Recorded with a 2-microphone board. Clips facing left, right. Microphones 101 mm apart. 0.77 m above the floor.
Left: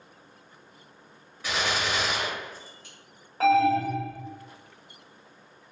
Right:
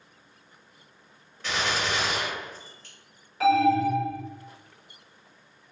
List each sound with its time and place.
1.4 s a gunshot: 10° left (ahead or behind), 1.4 m
3.4 s an alarm: 40° left (ahead or behind), 2.0 m